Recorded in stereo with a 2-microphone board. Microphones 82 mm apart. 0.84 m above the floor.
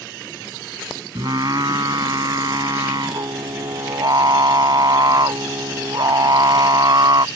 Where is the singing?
60° right (ahead or behind).